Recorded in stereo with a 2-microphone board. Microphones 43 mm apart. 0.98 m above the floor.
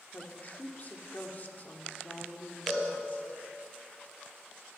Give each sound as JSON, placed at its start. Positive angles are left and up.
{"t": 0.1, "sound": "a woman speaking", "side_deg": 45, "distance_m": 2.5}
{"t": 2.7, "sound": "a cowbell", "side_deg": 5, "distance_m": 8.0}